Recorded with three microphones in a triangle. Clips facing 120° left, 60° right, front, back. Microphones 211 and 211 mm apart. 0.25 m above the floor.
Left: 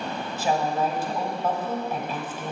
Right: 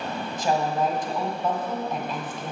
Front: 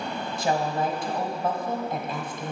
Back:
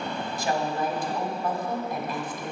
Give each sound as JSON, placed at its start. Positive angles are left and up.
{"t": 0.4, "sound": "a woman speaking", "azimuth_deg": 45, "distance_m": 1.5}